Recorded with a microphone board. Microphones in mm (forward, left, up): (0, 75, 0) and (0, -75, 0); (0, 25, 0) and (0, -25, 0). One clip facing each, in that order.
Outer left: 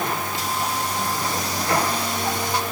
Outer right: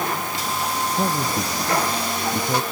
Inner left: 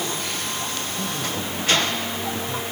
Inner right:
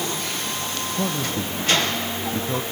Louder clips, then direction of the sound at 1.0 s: Outer right 3 dB, inner right 4 dB; 50° right (ahead or behind).